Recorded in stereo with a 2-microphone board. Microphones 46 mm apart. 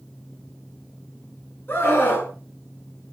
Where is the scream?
45° left (ahead or behind), 7.5 m.